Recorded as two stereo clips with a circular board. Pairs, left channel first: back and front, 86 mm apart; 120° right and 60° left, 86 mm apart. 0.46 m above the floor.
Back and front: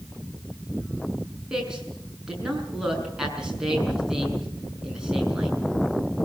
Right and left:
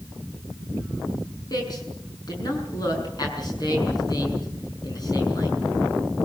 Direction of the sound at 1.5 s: 85° right.